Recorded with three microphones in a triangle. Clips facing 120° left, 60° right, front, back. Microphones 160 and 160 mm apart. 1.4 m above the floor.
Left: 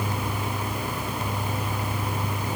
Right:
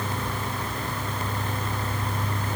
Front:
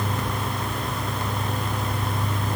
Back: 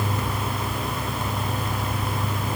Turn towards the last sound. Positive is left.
No sound to turn to.